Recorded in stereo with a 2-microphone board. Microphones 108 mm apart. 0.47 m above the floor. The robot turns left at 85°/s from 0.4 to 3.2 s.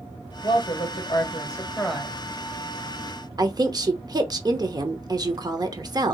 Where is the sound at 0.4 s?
130° left, 1.9 m; by 2.2 s 20° right, 1.9 m.